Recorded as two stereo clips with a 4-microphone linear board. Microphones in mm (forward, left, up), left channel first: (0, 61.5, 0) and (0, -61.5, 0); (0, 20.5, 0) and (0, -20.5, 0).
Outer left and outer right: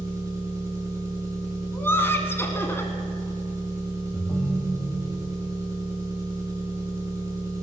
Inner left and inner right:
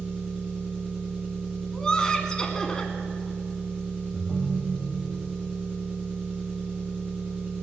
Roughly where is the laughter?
Centre.